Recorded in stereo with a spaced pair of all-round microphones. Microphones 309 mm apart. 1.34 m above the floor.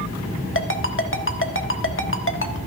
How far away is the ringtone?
About 1.2 m.